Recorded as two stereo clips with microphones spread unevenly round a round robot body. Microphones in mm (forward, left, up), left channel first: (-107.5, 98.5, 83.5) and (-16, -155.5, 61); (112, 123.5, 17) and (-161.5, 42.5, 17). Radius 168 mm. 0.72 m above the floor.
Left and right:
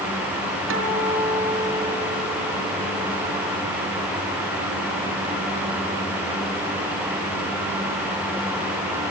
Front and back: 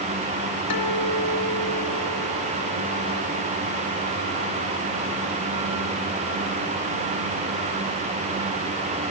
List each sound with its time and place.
0.7 s a guitar: 20° right, 2.5 m